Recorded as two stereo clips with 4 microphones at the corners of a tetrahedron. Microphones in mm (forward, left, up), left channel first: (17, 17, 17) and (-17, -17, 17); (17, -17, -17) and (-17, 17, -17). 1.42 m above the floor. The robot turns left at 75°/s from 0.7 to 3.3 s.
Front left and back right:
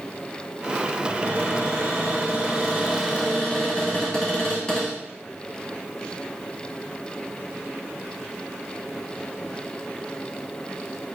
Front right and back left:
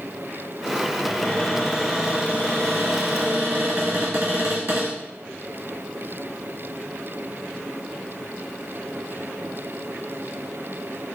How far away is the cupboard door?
About 1.7 m.